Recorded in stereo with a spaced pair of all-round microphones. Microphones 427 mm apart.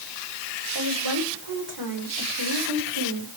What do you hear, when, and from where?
0.8 s a woman speaking: 70° right (ahead or behind), 6.5 m; by 3.3 s 75° right (ahead or behind), 5 m